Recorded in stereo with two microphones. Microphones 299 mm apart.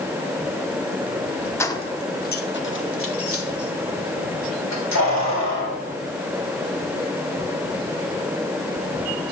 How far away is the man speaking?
I don't hear a man speaking.